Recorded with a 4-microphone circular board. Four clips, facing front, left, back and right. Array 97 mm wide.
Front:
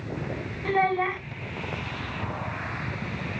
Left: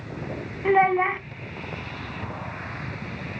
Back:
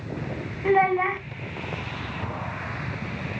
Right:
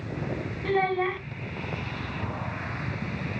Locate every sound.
0.7 s a child speaking: 105° left, 0.9 m